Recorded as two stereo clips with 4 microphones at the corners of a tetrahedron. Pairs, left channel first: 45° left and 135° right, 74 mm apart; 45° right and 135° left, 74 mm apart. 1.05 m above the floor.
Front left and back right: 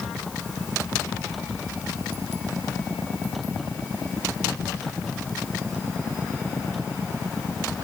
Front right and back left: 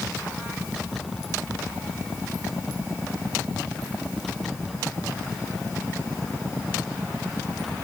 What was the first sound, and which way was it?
Only background noise.